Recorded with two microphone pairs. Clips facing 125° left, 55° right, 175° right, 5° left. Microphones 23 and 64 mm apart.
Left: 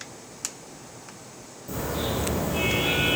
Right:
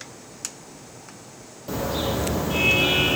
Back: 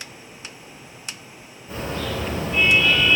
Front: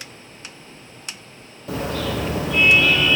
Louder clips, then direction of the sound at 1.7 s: Right 3 dB, front 3 dB; 10° right.